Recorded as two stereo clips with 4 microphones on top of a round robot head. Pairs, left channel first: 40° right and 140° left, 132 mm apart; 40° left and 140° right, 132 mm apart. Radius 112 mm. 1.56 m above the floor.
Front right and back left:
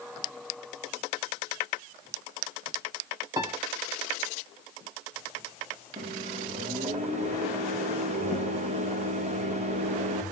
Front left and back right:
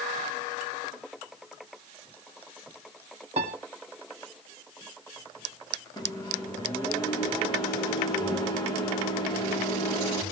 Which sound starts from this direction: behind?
A piano, at 3.4 s.